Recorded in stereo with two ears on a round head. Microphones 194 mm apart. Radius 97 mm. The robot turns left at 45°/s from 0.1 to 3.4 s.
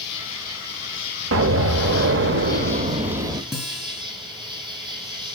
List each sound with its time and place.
0.0 s an insect: 130° left, 4 m; by 5.4 s 20° right, 4 m
1.3 s an explosion: 70° right, 0.7 m; by 3.4 s 165° right, 0.7 m
3.5 s a guitar: centre (ahead or behind), 6 m